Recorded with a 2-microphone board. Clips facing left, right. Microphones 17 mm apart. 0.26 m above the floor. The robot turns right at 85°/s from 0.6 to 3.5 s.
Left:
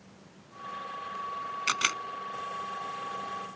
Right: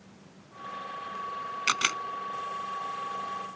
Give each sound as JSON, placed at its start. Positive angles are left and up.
{"t": 1.7, "sound": "a camera shutter", "side_deg": -20}